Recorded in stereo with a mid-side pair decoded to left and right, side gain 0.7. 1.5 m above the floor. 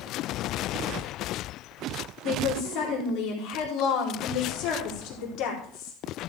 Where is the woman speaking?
55° left, 4.5 m.